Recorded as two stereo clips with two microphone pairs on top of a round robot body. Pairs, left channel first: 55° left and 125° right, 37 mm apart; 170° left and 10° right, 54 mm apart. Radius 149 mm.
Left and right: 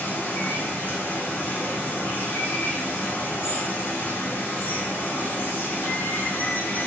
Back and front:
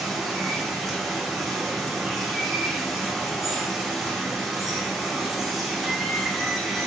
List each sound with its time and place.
0.0 s running water: 80° left, 0.8 m